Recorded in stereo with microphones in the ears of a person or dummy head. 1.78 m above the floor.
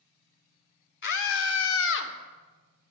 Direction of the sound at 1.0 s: 60° left (ahead or behind).